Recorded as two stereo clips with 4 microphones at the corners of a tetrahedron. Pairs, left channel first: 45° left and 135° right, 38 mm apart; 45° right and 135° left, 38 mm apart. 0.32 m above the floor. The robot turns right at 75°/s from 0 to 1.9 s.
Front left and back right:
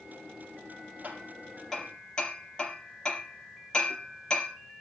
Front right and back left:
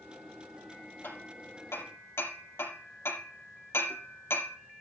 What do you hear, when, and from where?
1.0 s hammering: 85° right, 4.5 m; by 4.6 s 20° right, 4.5 m